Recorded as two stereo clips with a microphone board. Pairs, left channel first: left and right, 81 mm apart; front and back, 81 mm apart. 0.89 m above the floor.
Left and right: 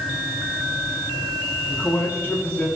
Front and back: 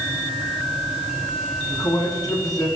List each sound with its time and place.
1.7 s a man speaking: 35° left, 6.5 m